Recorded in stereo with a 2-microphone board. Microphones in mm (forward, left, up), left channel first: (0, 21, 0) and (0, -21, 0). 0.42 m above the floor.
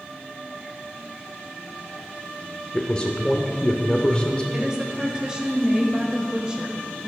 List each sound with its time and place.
2.7 s a man speaking: 25° left (ahead or behind), 0.9 m
4.5 s a woman speaking: 20° right (ahead or behind), 1.6 m